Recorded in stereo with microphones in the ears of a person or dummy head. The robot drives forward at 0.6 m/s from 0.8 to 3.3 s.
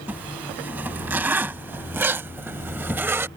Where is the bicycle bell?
I don't hear a bicycle bell.